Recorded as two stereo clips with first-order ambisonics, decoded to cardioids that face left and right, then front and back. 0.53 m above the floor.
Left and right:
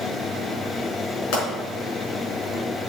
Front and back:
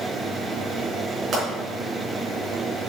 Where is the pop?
115° left, 5 m.